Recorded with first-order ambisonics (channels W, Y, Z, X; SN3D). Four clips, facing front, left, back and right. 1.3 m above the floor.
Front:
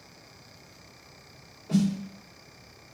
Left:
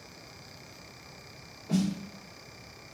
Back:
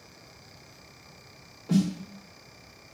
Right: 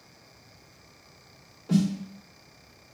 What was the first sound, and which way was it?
A snare drum, 150° right.